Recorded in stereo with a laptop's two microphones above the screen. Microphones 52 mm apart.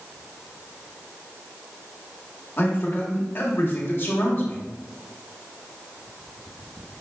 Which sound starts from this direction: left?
A man speaking, at 2.6 s.